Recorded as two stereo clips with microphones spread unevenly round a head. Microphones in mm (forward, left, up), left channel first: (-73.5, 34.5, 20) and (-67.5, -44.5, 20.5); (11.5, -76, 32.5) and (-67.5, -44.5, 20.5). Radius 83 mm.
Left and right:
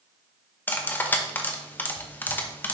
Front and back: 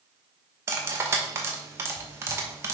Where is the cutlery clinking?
115° left, 0.8 m.